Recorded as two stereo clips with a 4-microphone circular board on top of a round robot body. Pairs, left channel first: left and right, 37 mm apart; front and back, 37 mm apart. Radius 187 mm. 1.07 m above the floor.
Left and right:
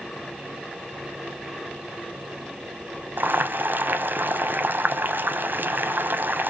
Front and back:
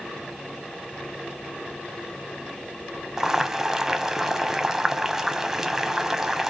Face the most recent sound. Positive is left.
turn(degrees=-100)